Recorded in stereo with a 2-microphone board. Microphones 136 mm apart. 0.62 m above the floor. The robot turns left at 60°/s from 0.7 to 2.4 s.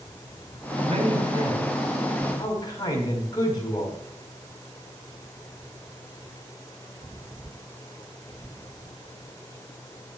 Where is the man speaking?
120° right, 4.5 m; by 4.0 s 145° left, 4.5 m.